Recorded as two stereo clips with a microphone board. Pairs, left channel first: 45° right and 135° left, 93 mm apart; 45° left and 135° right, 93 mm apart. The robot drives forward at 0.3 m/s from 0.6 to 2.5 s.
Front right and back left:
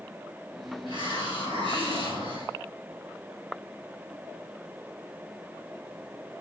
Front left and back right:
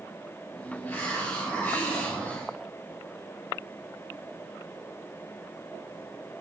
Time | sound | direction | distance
0.9 | a hiss | 115° left | 4 m